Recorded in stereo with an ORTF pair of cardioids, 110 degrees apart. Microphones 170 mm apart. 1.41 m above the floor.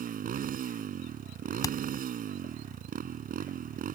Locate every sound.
0.0 s a motorcycle: 55° right
1.6 s hammering: 20° left